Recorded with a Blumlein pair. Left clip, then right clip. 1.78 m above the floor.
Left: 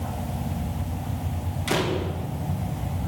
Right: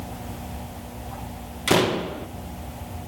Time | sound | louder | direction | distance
1.7 | a door slam | right 5 dB | 20° right | 1.8 m